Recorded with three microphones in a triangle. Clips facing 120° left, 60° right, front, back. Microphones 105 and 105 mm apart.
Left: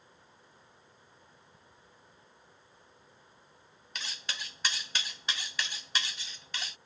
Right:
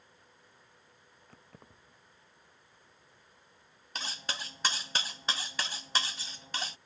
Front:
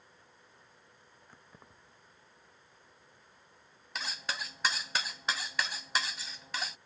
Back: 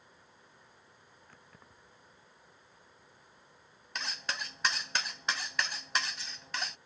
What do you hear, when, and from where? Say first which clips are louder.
1.3 s keys jangling: right 3 dB, front 2 dB; 75° right
4.0 s cutlery clinking: right 3 dB, even; 85° right